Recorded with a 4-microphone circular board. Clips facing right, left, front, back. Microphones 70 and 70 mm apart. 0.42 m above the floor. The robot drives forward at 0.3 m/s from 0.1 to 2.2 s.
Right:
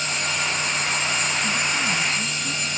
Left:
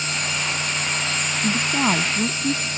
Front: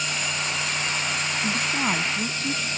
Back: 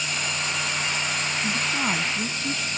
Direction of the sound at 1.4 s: 75° left.